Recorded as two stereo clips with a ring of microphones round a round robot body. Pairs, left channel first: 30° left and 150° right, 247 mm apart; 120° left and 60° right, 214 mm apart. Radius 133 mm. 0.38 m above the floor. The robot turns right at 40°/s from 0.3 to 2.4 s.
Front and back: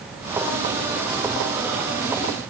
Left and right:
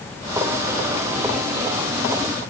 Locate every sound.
Only background noise.